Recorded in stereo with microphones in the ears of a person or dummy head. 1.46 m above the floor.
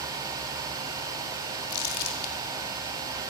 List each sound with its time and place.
1.7 s crumpling: 65° left (ahead or behind), 3.5 m